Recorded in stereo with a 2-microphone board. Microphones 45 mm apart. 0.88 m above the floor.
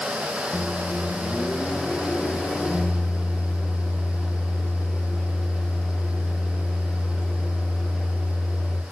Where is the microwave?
30° left (ahead or behind), 1.4 m.